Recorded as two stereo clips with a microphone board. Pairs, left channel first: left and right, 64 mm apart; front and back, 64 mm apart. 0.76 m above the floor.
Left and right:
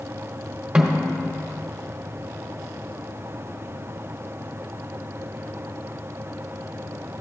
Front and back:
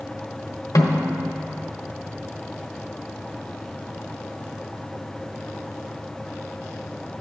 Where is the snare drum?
10° right, 1.1 m.